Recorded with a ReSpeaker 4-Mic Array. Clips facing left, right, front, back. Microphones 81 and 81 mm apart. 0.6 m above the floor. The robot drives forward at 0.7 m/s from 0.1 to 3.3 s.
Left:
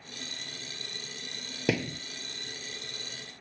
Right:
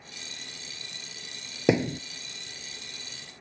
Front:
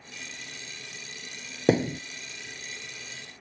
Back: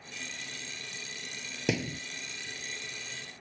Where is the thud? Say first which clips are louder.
Right 6 dB, front 9 dB; 30° right; by 2.0 s 50° right.